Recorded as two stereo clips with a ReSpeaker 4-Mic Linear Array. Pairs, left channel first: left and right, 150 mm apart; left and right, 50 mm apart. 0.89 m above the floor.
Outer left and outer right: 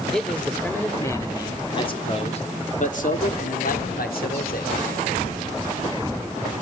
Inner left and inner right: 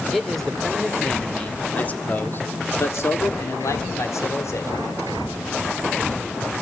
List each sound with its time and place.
0.1 s a man speaking: 5° left (ahead or behind), 3 m; by 4.7 s 80° left, 3 m